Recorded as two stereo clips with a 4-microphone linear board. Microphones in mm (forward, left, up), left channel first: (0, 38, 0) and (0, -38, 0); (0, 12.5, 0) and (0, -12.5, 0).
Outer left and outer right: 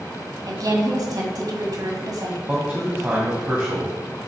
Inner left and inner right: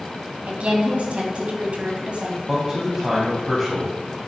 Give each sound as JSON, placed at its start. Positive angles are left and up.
{"t": 0.5, "sound": "a woman speaking", "side_deg": -60, "distance_m": 2.5}
{"t": 2.5, "sound": "a man speaking", "side_deg": -25, "distance_m": 2.5}